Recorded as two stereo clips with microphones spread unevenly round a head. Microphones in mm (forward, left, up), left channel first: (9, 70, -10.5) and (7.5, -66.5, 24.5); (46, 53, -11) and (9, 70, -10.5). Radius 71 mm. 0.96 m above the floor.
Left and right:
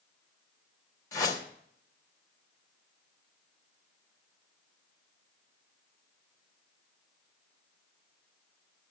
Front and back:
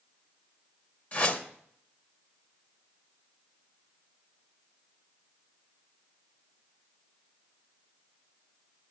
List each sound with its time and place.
1.1 s a whoosh: 20° left, 2.0 m